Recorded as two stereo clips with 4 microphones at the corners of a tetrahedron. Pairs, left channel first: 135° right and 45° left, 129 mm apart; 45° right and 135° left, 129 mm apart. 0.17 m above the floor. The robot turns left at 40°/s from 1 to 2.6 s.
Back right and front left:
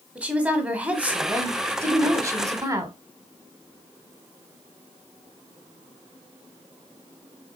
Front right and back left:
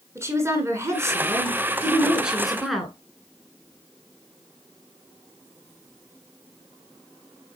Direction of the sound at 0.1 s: 110° left.